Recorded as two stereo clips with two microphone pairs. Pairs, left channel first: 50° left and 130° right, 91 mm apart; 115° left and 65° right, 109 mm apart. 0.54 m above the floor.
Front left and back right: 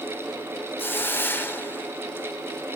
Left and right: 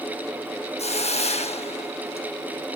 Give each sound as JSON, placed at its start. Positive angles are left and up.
{"t": 0.8, "sound": "a hiss", "azimuth_deg": 115, "distance_m": 0.7}